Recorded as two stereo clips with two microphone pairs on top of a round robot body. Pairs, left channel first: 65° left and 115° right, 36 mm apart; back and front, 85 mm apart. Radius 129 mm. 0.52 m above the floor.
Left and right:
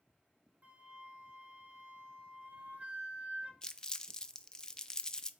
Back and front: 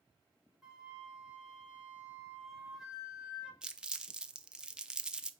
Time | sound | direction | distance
0.6 | a flute | 80° right | 1.2 m
3.6 | crumpling | 55° left | 0.5 m